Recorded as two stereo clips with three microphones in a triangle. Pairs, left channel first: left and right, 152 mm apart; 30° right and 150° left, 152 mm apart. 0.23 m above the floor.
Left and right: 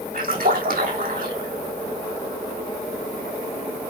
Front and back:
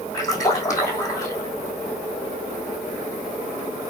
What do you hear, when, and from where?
0.1 s a splash: 100° right, 4 m